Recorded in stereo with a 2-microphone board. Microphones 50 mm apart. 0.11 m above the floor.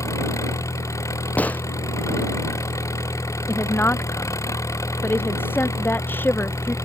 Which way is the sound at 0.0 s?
80° left.